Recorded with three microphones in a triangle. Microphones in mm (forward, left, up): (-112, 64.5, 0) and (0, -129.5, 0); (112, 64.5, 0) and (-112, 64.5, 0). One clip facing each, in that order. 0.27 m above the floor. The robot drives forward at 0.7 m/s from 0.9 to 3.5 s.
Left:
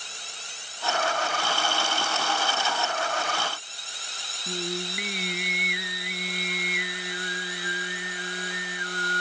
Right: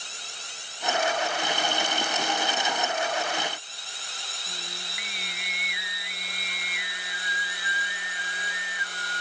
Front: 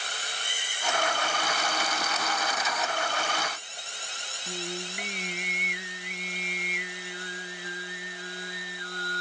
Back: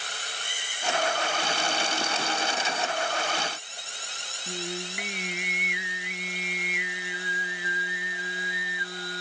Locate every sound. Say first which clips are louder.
4.5 s singing: left 16 dB, back 1 dB; 95° left